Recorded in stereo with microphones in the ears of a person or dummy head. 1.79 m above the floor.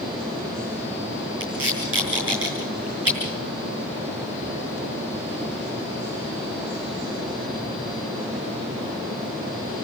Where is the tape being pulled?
10° right (ahead or behind), 8.5 m.